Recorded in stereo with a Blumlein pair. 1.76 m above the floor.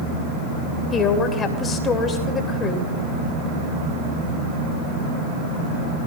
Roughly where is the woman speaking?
Ahead.